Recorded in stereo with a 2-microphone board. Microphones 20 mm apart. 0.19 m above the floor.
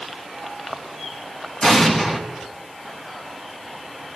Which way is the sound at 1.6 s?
25° left (ahead or behind).